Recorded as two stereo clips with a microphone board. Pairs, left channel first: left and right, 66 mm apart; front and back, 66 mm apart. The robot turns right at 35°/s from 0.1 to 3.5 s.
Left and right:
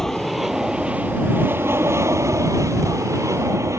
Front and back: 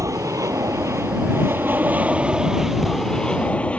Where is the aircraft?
175° left; by 3.8 s 70° right.